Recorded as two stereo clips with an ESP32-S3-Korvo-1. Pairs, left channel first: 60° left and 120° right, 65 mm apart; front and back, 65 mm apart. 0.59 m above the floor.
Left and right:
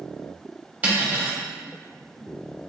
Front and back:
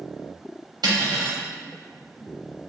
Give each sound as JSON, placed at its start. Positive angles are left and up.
{"t": 0.8, "sound": "cutlery clinking", "azimuth_deg": 175, "distance_m": 0.8}